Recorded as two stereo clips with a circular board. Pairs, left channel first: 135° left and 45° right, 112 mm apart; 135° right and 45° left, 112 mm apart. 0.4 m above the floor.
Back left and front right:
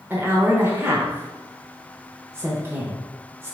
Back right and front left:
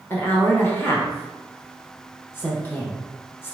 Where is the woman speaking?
90° right, 0.9 m.